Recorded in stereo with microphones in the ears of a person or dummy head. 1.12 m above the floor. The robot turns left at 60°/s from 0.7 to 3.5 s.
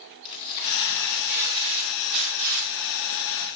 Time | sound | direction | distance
0.2 | tearing paper | 30° left | 5 m